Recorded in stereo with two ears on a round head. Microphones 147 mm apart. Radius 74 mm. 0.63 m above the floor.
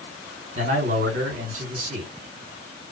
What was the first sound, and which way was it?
A man speaking, 50° right (ahead or behind).